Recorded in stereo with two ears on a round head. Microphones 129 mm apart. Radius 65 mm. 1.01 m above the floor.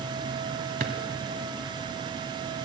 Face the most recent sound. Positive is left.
turn(degrees=-65)  # may be behind; listen again after turning